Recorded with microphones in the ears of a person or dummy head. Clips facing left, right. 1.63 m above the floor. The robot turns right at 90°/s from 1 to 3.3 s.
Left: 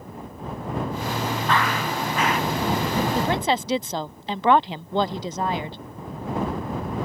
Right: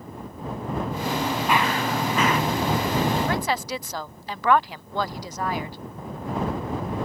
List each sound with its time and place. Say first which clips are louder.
1.5 s running footsteps: right 1 dB; 170° right; by 2.4 s 90° right
3.1 s a woman speaking: left 2 dB; 35° left (ahead or behind); by 5.8 s 20° left (ahead or behind)